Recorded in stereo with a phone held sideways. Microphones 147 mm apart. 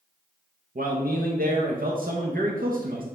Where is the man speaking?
75° right (ahead or behind), 0.9 m.